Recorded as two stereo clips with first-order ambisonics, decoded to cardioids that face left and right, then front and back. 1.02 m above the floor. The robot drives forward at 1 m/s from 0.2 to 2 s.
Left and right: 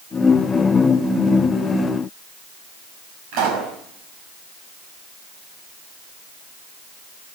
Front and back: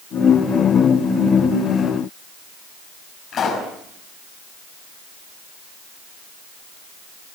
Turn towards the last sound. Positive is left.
turn(degrees=-65)